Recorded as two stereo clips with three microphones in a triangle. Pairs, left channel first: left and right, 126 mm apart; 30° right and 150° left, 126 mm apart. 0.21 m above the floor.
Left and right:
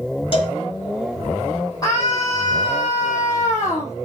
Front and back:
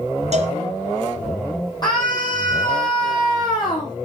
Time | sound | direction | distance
0.3 | a cowbell | 130° left | 3 m
1.8 | a scream | 25° left | 6.5 m